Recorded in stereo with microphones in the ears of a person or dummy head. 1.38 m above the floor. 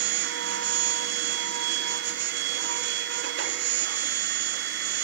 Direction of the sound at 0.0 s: 65° right (ahead or behind).